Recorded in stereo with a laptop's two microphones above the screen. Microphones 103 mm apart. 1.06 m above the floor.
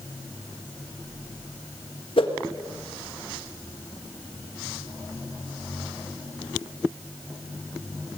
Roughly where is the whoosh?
Left.